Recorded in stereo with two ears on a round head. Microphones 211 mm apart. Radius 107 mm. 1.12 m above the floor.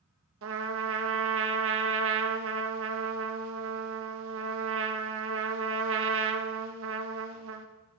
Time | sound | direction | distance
0.4 | a trumpet | 55° right (ahead or behind) | 0.8 m